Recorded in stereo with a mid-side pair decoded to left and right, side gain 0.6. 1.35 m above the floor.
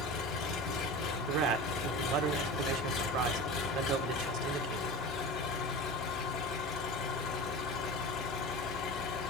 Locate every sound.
0.0 s an engine running: 60° left, 3 m
1.3 s a man speaking: 65° right, 1.7 m